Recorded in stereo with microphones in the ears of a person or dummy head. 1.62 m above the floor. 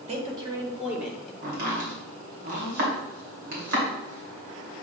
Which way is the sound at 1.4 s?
60° right (ahead or behind).